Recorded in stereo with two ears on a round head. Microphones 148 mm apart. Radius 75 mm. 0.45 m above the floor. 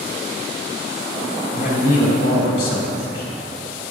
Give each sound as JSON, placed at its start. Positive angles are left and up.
{"t": 1.5, "sound": "a man speaking", "side_deg": 65, "distance_m": 3.0}